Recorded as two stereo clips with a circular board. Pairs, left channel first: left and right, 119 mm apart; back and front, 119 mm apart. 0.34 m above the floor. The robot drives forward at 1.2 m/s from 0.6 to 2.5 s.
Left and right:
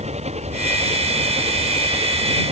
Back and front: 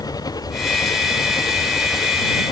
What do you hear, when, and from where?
0.0 s an engine running: 120° right; by 2.5 s 125° right